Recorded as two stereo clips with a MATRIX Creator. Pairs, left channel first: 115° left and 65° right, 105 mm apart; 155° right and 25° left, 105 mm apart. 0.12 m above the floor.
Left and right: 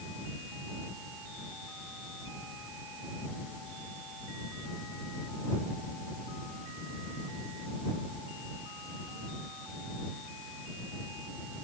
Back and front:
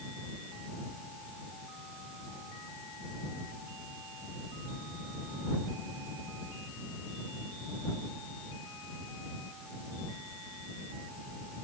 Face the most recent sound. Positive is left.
No sound to turn to.